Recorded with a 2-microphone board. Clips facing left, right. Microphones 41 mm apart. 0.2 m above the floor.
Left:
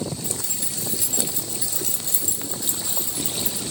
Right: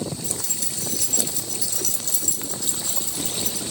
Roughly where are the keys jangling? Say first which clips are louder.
Even; left.